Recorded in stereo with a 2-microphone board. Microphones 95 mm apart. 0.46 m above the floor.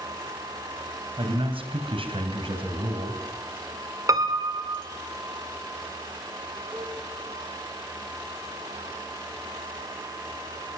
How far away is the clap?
I don't hear a clap.